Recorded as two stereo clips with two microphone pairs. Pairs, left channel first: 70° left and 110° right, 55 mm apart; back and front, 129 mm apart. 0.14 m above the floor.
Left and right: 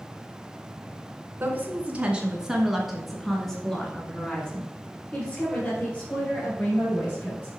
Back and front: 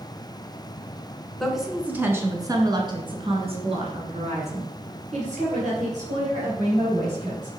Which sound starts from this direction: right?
A woman speaking, at 1.4 s.